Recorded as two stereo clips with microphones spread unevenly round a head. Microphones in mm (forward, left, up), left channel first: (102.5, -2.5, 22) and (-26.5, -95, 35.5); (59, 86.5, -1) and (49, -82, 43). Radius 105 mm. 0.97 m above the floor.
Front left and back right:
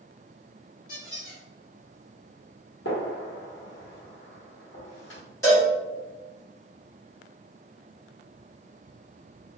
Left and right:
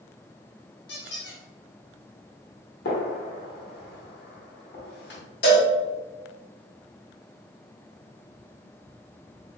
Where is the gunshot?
70° left, 1.3 m.